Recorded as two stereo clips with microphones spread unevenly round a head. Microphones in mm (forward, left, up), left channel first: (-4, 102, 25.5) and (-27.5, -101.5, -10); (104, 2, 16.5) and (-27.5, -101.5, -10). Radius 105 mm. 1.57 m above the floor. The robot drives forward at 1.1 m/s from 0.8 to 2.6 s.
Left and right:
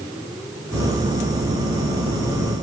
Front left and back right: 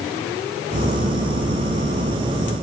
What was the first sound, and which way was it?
Only background noise.